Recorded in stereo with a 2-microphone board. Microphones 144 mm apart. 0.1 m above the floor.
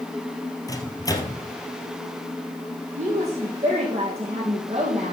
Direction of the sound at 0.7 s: 25° left (ahead or behind).